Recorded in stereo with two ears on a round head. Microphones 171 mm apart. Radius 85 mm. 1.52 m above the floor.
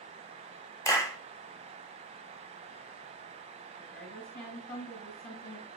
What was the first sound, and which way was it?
A clap, 15° left (ahead or behind).